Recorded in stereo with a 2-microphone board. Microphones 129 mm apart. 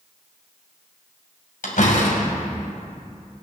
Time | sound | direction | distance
1.6 | a door slam | 80° left | 2.5 m